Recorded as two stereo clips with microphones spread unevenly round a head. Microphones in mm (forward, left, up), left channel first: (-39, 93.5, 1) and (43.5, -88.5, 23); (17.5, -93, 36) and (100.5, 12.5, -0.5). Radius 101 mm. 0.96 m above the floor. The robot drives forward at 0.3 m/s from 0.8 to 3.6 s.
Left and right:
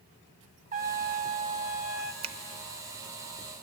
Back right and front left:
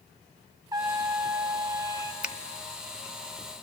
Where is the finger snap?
10° right, 0.8 m.